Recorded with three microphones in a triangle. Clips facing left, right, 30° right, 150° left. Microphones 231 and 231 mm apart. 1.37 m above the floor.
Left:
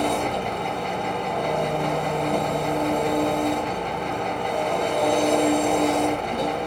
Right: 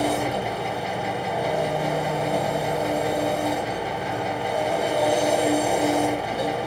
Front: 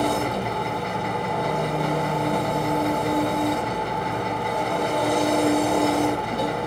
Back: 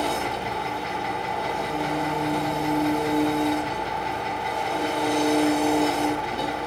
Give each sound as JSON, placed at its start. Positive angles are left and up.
{"t": 0.0, "sound": "an engine running", "azimuth_deg": -5, "distance_m": 2.0}